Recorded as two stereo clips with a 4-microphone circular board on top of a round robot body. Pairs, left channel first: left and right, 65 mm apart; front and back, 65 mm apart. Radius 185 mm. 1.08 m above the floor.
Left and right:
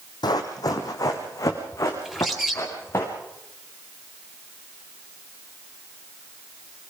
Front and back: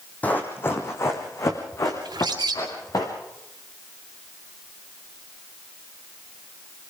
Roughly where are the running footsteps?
Left.